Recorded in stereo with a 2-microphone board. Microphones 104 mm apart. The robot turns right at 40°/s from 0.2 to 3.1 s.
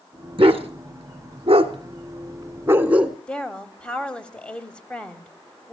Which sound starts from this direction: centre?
A woman speaking, at 3.3 s.